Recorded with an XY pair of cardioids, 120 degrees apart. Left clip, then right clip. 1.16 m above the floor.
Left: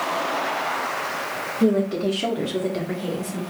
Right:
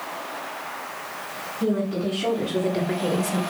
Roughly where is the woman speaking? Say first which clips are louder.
Left 4 dB; ahead left.